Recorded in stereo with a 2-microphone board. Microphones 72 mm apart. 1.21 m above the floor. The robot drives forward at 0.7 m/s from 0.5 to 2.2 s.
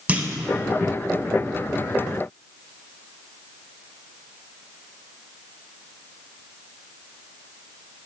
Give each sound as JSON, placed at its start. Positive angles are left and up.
{"t": 0.1, "sound": "a clunk", "side_deg": -20, "distance_m": 0.7}